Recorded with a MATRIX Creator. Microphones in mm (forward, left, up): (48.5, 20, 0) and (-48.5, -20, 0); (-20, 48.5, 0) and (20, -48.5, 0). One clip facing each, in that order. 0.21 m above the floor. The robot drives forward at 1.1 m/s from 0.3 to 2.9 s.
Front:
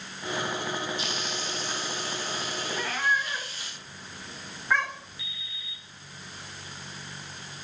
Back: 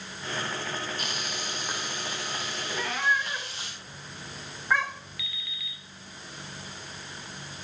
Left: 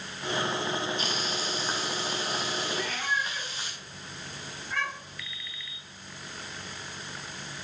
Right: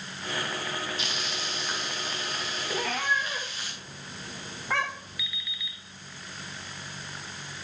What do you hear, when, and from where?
1.0 s frying: 160° left, 1.9 m; by 3.7 s 170° left, 4 m
2.7 s a cat meowing: 65° right, 2.5 m; by 5.2 s 70° right, 2 m
5.2 s an alarm clock: 150° right, 2 m